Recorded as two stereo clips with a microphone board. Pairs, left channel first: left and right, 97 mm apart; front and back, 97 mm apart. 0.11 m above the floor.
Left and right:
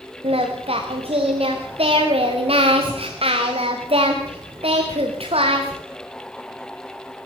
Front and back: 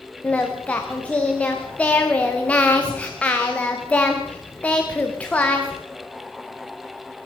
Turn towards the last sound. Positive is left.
turn(degrees=-75)